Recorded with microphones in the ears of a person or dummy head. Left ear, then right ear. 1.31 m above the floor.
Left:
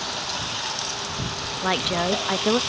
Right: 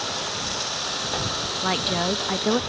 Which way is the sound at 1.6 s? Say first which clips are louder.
Left 2 dB; 15° left (ahead or behind).